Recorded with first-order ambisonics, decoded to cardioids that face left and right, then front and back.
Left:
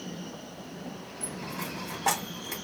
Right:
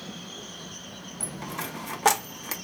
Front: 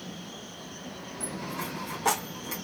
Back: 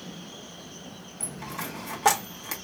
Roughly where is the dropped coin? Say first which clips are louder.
Right 2 dB, even; behind right.